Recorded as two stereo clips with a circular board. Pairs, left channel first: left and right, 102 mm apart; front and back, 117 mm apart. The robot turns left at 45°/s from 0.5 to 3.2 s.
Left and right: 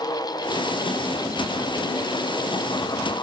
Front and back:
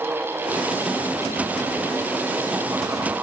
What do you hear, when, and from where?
Only background noise.